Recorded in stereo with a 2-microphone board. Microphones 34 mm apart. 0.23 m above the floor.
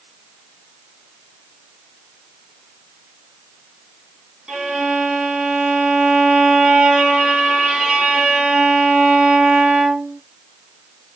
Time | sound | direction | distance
4.5 | a violin | 30° right (ahead or behind) | 1.5 m